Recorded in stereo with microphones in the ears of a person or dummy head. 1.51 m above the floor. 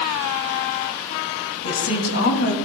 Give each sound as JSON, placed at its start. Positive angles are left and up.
{"t": 1.6, "sound": "a woman speaking", "side_deg": 80, "distance_m": 2.5}